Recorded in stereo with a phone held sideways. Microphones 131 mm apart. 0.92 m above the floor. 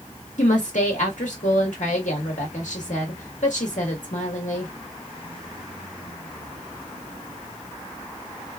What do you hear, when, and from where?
0.4 s a woman speaking: 70° left (ahead or behind), 1.4 m